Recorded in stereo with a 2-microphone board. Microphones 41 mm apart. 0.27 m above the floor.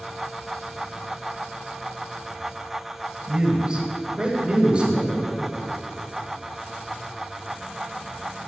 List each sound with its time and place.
3.3 s a man speaking: 20° right (ahead or behind), 1.4 m; by 5.2 s 25° right (ahead or behind), 1.6 m